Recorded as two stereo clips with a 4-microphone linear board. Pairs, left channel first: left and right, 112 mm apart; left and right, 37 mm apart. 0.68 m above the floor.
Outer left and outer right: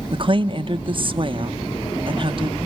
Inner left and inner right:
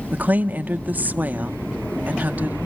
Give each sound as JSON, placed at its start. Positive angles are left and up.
{"t": 0.1, "sound": "a woman speaking", "side_deg": -50, "distance_m": 1.0}